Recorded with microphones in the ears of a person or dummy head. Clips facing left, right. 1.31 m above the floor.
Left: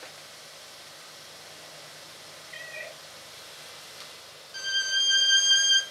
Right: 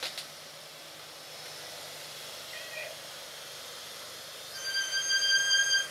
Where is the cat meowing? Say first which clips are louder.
Left 1 dB; 55° left (ahead or behind), 2.5 m.